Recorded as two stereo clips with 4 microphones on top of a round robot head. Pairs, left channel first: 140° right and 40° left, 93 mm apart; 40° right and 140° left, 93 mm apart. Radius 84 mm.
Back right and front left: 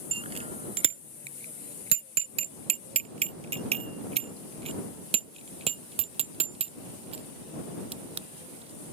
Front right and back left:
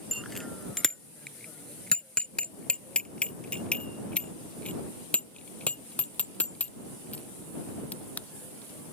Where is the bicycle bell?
50° left; by 8.9 s 35° left.